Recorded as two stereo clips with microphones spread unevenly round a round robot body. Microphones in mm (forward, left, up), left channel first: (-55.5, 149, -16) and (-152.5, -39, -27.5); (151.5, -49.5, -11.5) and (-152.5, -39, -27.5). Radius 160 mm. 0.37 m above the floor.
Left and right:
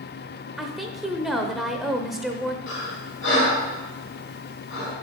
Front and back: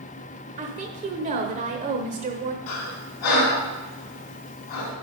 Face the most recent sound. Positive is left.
turn(degrees=15)